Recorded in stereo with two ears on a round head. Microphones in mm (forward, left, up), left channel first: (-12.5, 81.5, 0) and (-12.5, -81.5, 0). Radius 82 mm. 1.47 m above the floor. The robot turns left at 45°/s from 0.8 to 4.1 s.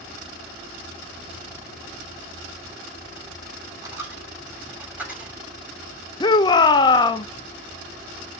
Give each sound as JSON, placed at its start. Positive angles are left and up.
{"t": 3.8, "sound": "a dropped coin", "side_deg": -20, "distance_m": 2.0}
{"t": 6.2, "sound": "a shout", "side_deg": 25, "distance_m": 0.5}